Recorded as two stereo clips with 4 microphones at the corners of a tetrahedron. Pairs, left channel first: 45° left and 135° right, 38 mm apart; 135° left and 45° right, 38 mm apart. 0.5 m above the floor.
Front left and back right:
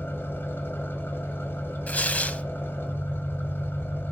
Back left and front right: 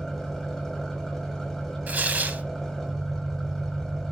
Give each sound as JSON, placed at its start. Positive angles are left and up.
{"t": 0.0, "sound": "an engine running", "azimuth_deg": 55, "distance_m": 1.3}
{"t": 1.9, "sound": "tearing paper", "azimuth_deg": 0, "distance_m": 0.8}